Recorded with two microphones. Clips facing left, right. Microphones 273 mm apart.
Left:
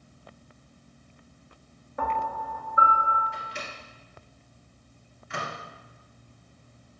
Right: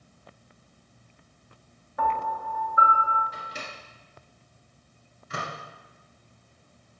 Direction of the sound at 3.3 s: 45° right (ahead or behind).